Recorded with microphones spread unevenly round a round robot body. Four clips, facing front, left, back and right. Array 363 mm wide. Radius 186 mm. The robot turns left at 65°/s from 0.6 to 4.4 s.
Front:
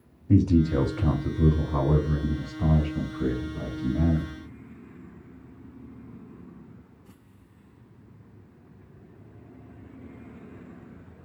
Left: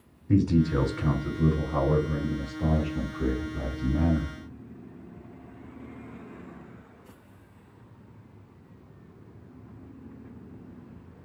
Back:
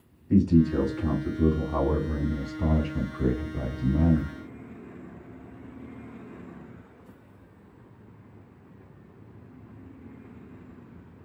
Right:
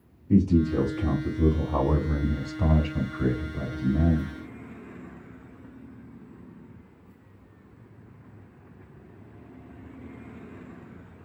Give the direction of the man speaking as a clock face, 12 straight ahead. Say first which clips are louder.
Right 1 dB, even; 11 o'clock.